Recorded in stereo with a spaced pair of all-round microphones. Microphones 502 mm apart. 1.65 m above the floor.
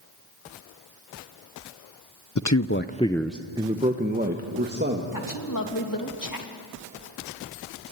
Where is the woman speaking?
40° left (ahead or behind), 3 m.